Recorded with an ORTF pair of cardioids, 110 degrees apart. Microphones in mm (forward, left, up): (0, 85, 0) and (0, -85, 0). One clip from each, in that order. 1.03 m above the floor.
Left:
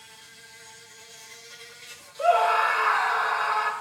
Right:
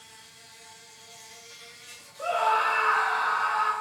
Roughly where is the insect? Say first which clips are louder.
Left 2 dB; ahead left.